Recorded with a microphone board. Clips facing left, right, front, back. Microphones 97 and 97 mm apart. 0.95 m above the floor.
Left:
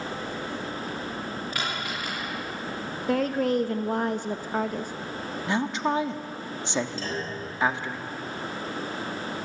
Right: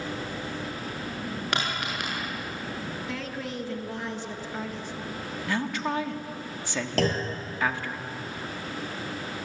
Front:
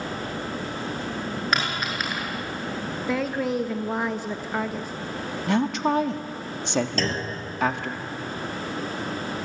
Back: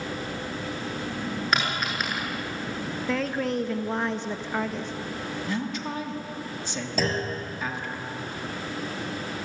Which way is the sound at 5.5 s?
25° left.